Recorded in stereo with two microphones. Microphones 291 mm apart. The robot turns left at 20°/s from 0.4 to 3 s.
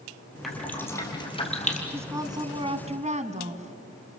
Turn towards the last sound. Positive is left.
turn(degrees=-25)  # may be behind; listen again after turning